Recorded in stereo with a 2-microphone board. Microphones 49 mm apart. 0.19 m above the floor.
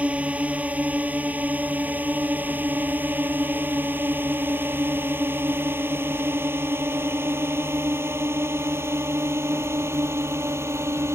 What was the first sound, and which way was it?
A drone, 25° right (ahead or behind).